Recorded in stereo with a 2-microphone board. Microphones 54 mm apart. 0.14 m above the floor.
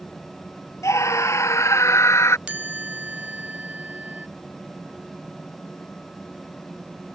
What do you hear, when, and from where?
0.8 s a scream: 60° left (ahead or behind); by 2.4 s 55° left (ahead or behind)
2.5 s a chime: 15° right (ahead or behind)